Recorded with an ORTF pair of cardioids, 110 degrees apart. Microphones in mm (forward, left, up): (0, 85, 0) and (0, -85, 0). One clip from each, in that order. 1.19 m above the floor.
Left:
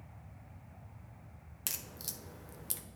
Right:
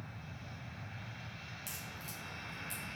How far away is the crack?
About 0.9 m.